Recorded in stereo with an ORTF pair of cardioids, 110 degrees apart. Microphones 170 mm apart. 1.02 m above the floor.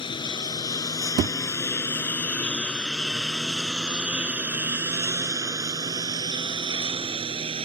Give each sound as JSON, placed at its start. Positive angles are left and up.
{"t": 0.0, "sound": "a lawn mower", "azimuth_deg": 30}
{"t": 1.2, "sound": "a thud", "azimuth_deg": -60}